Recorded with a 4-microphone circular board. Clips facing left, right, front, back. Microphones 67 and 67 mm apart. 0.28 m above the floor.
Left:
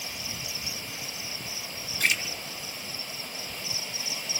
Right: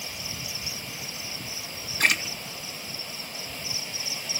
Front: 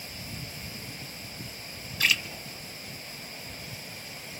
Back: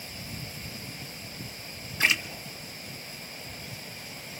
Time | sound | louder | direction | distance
2.0 | a splash | right 3 dB, back 1 dB | 120° right | 1.1 m